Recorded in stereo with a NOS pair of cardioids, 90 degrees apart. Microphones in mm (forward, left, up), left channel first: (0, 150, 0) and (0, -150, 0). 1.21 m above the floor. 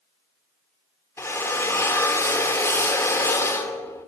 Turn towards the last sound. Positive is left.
turn(degrees=10)